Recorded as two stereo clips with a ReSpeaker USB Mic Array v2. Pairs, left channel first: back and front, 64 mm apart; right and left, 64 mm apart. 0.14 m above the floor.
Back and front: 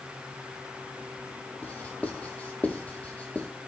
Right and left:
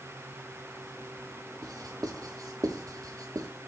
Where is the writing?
110° left, 0.7 m.